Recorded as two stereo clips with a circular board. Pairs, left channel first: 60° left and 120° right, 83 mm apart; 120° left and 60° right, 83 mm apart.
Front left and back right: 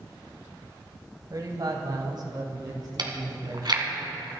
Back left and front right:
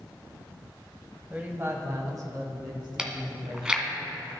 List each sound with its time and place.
1.3 s a man speaking: 130° right, 1.6 m; by 4.0 s 80° right, 4.5 m
3.0 s chewing: 140° right, 2 m